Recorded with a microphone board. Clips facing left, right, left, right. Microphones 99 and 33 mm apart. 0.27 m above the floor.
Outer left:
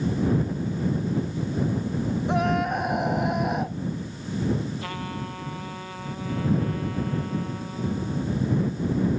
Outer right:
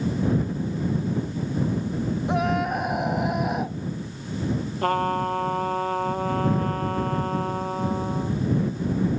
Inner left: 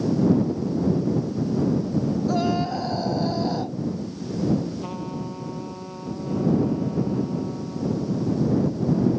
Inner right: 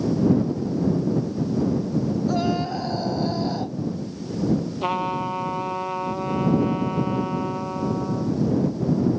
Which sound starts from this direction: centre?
A scream, at 2.3 s.